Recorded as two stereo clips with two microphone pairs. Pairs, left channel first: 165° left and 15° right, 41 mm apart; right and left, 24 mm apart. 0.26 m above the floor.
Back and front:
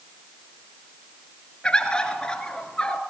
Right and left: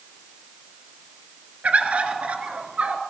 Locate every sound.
1.6 s a bird: 95° left, 1.9 m